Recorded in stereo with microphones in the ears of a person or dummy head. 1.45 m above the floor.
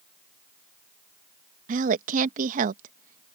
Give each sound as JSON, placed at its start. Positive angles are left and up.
{"t": 1.7, "sound": "a woman speaking", "side_deg": -50}